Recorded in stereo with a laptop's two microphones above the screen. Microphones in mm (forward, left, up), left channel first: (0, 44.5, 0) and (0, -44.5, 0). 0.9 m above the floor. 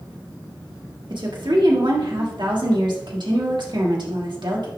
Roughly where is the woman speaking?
Right.